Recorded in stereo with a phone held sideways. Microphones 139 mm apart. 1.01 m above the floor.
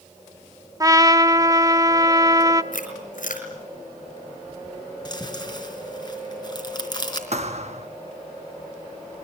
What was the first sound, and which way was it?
A trumpet, 25° right (ahead or behind).